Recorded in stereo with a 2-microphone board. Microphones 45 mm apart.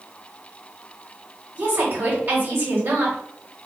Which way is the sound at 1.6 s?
50° right (ahead or behind).